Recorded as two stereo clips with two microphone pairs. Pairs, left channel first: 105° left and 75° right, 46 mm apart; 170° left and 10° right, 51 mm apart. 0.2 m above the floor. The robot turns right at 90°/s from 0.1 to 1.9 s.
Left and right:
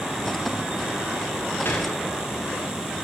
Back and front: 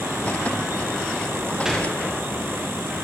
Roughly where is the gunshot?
Left.